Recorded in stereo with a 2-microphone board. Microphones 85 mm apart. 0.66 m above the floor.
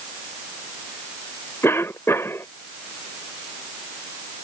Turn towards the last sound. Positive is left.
turn(degrees=30)  # may be behind; listen again after turning